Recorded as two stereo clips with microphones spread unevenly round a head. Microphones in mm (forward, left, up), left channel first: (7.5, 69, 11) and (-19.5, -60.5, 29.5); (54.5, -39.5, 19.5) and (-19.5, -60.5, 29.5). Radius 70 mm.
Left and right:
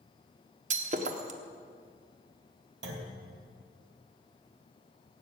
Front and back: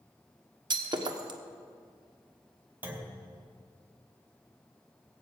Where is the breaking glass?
140° right, 1.2 m.